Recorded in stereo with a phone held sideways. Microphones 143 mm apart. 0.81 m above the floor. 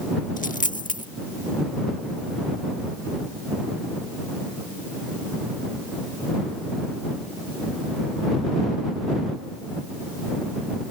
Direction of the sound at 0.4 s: 65° left (ahead or behind).